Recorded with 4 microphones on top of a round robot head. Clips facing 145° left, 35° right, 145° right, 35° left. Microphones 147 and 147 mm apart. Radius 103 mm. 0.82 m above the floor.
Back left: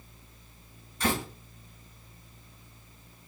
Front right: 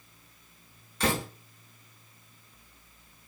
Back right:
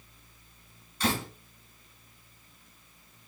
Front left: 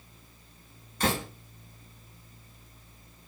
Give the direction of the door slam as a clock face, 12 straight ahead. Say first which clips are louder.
Front right 1 dB, front left 1 dB; 12 o'clock.